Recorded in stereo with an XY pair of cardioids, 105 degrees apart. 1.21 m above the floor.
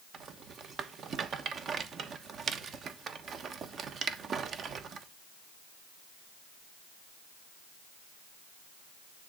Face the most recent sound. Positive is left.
turn(degrees=-55)